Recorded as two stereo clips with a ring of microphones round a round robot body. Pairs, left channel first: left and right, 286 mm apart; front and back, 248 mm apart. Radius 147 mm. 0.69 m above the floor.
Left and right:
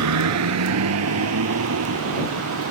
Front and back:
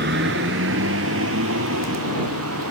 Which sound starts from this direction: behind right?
A vehicle, at 0.0 s.